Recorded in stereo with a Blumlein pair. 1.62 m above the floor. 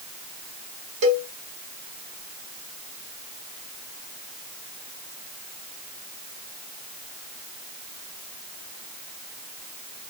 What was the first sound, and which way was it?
A cowbell, 40° right.